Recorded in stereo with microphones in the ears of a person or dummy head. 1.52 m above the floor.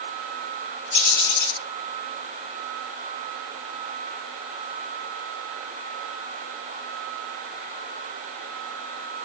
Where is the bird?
75° left (ahead or behind), 6 m.